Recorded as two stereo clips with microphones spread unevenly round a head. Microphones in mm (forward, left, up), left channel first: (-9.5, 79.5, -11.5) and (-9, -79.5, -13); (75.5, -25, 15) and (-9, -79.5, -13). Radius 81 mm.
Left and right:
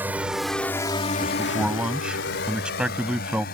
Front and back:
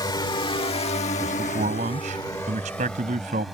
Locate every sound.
0.0 s a drone: 10° right; by 3.5 s 120° left
1.2 s a man speaking: 175° right